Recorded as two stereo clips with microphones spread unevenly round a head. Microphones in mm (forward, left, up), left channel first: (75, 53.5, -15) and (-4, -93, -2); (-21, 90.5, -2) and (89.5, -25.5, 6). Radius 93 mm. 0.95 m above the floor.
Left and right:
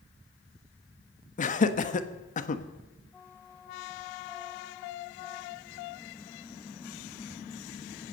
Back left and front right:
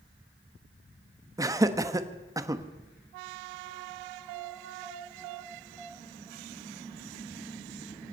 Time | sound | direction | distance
1.4 | laughter | 25° left | 1.3 m